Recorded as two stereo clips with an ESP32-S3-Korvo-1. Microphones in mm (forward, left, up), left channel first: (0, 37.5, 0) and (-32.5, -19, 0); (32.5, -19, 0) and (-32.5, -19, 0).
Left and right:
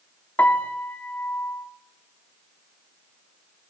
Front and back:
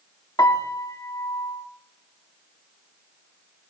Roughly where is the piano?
Ahead.